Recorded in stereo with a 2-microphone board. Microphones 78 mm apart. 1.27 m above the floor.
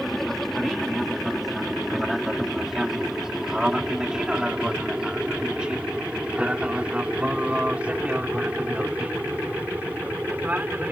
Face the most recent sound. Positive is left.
turn(degrees=-20)  # may be behind; listen again after turning